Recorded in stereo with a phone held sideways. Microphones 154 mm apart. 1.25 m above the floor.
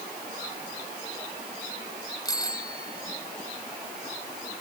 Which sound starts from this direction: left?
A bicycle bell, at 2.2 s.